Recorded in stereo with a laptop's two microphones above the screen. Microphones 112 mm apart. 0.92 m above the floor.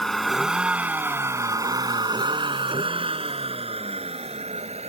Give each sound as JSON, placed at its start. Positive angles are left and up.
{"t": 0.0, "sound": "a vehicle", "side_deg": 5}